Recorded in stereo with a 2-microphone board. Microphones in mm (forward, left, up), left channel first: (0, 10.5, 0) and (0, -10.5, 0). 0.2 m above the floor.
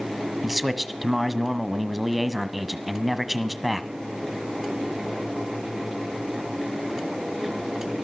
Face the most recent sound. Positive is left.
turn(degrees=-5)  # may be behind; listen again after turning